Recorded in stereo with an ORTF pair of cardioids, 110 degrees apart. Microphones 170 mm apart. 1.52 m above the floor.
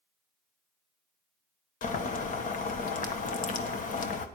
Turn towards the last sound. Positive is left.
turn(degrees=50)